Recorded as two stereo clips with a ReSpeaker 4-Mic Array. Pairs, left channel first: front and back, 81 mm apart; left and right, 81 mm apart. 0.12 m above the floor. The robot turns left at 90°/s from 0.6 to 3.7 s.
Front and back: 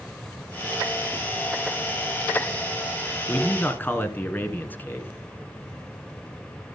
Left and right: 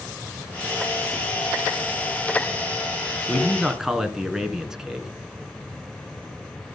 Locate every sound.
3.3 s a man speaking: 25° left, 1.6 m; by 5.1 s 15° right, 1.6 m